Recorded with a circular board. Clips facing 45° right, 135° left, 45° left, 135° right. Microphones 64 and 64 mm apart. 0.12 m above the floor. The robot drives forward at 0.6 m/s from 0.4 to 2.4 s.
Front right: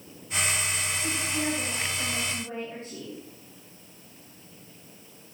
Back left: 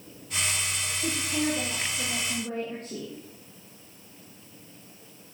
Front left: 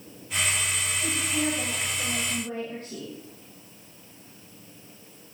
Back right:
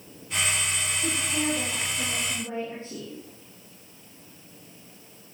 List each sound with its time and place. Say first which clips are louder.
1.0 s a woman speaking: back left 4 dB, front left 1 dB; 155° left, 4.5 m; by 3.1 s 160° left, 5 m